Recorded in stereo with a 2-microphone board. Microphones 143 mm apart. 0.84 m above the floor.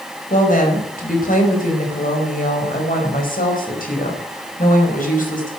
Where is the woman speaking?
70° left (ahead or behind), 5 m; by 5.5 s 75° left (ahead or behind), 5 m.